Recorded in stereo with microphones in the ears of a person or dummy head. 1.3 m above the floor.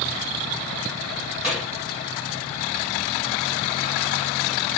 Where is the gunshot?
10° right (ahead or behind), 1.3 m.